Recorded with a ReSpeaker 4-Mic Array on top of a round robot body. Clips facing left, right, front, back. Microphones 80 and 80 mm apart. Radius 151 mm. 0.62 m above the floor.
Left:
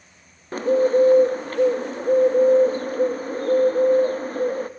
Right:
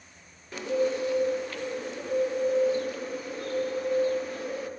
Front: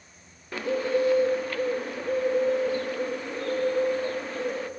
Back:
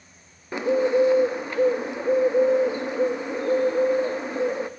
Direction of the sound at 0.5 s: 115° left.